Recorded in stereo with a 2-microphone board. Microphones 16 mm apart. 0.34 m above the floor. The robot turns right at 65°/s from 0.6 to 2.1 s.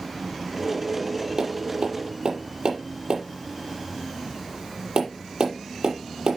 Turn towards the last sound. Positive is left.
turn(degrees=-80)